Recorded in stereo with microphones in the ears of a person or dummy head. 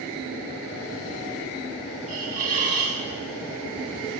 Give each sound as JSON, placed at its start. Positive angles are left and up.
{"t": 2.1, "sound": "a hiss", "side_deg": -40, "distance_m": 1.5}